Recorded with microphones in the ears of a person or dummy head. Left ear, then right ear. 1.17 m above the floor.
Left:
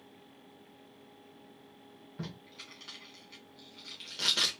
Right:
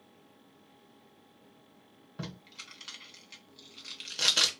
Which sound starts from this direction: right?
Tape being pulled, at 2.2 s.